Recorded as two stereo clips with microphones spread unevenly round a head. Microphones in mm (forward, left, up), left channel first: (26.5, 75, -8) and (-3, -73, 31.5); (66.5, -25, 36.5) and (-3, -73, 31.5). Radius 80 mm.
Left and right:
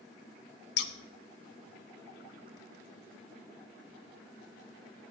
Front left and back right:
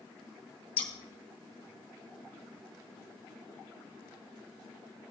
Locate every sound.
0.8 s scissors: 65° left, 0.8 m